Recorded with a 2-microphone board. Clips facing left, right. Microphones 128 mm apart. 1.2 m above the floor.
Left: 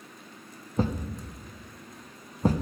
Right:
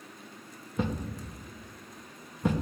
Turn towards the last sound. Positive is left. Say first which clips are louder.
# left 3 dB
turn(degrees=35)  # may be behind; listen again after turning